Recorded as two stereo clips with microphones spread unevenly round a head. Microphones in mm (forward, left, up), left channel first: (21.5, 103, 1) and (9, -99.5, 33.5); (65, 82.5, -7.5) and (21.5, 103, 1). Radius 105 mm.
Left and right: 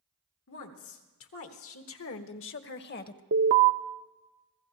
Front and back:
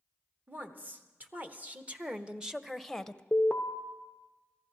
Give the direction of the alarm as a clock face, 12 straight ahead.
3 o'clock.